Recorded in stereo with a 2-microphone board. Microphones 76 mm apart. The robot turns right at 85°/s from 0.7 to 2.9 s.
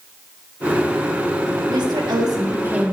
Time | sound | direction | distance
1.7 | a woman speaking | 110° right | 1.9 m